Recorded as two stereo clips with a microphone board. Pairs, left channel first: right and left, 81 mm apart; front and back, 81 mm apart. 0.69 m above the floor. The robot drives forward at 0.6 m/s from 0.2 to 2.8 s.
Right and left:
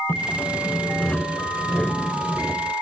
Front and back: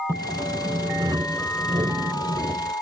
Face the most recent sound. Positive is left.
turn(degrees=-170)